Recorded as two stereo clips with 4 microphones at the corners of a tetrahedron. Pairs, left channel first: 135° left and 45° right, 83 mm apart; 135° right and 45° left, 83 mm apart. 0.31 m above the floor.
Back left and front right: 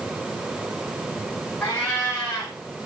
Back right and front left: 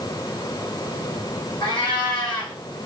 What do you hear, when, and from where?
1.6 s a cat meowing: 160° right, 1.9 m